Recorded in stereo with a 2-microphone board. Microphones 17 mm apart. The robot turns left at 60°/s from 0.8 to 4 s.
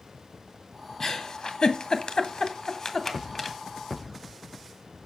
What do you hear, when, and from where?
1.0 s a giggle: 25° left (ahead or behind), 1.7 m; by 3.6 s 5° right (ahead or behind), 1.7 m